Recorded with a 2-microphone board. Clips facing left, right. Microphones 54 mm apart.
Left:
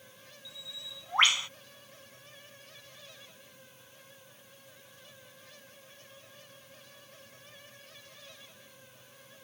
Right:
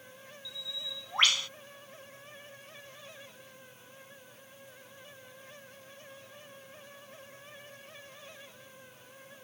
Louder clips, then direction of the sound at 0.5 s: Right 5 dB; 25° left (ahead or behind).